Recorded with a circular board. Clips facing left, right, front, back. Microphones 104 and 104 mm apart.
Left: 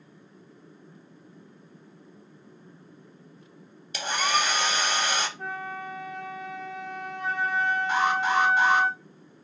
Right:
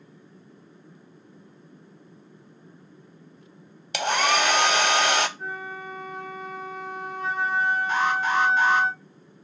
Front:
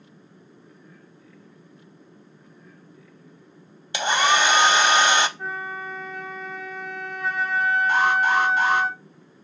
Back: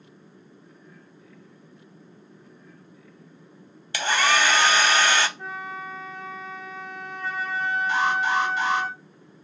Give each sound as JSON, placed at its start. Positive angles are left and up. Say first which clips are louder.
{"t": 3.9, "sound": "a hair dryer", "louder": "right 4 dB, front 2 dB", "azimuth_deg": -70, "distance_m": 0.6}
{"t": 5.4, "sound": "a flute", "louder": "even, front 3 dB", "azimuth_deg": 85, "distance_m": 3.0}
{"t": 7.9, "sound": "an alarm", "louder": "left 2 dB, front 2 dB", "azimuth_deg": 20, "distance_m": 3.0}